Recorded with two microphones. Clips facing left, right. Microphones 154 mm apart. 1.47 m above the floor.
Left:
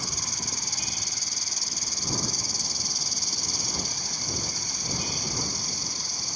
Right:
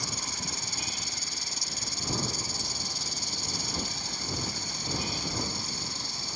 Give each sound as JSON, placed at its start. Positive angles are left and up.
{"t": 0.0, "sound": "an insect", "side_deg": 40}